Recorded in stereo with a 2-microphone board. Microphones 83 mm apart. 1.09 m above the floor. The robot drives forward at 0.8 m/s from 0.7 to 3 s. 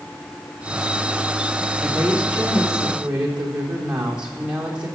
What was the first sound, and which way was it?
A woman speaking, 15° right (ahead or behind).